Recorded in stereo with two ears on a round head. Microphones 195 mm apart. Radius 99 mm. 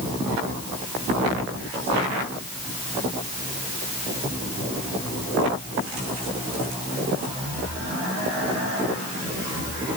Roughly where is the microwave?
I don't hear a microwave.